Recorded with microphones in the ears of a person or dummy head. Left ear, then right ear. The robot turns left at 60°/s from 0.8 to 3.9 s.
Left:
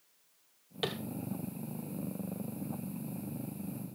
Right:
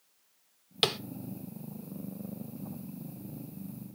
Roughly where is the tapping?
Right.